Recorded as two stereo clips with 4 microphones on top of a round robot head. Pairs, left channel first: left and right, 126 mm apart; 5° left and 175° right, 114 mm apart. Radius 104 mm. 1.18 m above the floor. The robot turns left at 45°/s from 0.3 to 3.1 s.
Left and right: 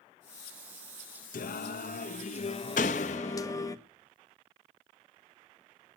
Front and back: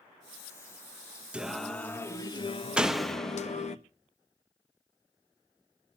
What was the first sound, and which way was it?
Singing, 105° left.